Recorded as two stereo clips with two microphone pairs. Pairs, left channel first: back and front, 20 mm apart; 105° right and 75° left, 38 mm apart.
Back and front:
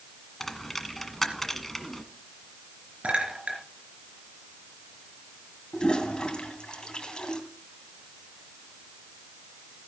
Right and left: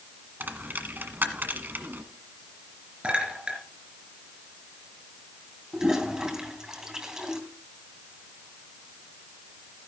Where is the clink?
15° left, 3.5 m.